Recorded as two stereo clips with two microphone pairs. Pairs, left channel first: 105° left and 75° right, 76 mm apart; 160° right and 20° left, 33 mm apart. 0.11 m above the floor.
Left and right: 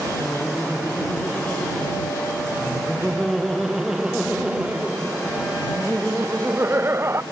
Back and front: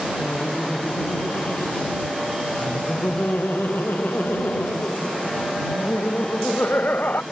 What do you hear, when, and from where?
0.2 s laughter: 170° left; by 7.2 s 130° right